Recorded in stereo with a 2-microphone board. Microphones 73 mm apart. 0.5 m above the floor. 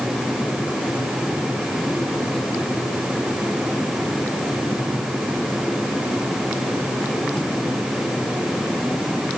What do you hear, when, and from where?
Only background noise.